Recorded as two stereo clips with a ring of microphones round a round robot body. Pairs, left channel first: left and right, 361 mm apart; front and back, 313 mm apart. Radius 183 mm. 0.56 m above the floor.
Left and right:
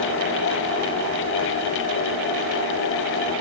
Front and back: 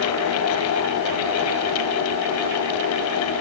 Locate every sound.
Only background noise.